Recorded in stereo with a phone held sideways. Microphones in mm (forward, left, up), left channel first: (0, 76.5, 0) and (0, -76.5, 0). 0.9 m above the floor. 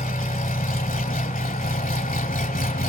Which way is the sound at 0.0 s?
55° left (ahead or behind).